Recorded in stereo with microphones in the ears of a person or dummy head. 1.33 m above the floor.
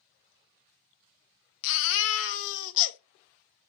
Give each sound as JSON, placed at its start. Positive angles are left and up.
{"t": 1.6, "sound": "a baby crying", "side_deg": 65, "distance_m": 0.6}